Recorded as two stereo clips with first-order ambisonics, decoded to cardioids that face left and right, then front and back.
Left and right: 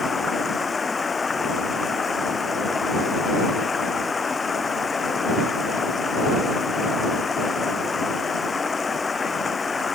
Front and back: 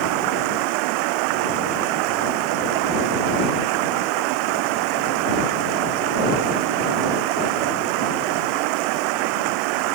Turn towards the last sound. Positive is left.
turn(degrees=165)